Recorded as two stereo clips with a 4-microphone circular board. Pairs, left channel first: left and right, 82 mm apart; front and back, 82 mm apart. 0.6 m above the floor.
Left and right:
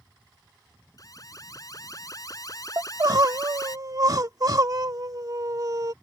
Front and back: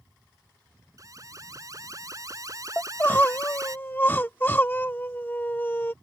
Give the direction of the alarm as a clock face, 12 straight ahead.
8 o'clock.